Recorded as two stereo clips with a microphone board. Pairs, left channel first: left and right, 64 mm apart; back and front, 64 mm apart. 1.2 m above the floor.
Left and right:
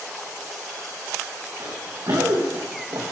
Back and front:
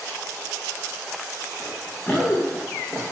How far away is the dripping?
No dripping in this recording.